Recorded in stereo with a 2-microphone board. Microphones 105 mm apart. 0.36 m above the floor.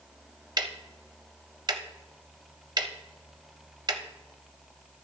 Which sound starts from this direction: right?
Ticking, at 0.6 s.